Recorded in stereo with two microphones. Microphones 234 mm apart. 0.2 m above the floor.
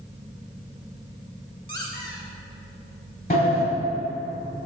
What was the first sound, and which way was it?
A squeak, 55° right (ahead or behind).